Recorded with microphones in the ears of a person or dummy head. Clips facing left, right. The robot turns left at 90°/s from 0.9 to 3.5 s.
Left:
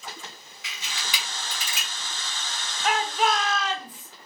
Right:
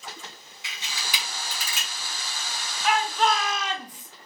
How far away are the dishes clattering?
No dishes clattering in this recording.